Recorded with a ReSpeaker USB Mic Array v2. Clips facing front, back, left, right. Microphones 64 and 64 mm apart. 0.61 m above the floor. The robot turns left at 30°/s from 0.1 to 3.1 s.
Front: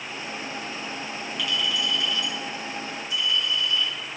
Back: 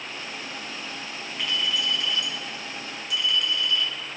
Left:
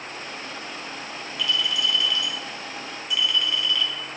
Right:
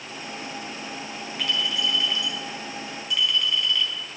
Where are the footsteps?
No footsteps in this recording.